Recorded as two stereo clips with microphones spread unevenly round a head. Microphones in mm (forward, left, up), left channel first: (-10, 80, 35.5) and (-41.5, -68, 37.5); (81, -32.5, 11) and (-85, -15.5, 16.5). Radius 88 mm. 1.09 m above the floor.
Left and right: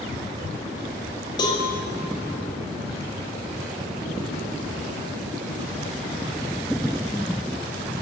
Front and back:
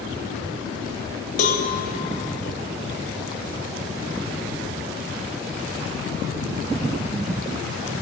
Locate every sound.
1.4 s a cowbell: 20° left, 0.6 m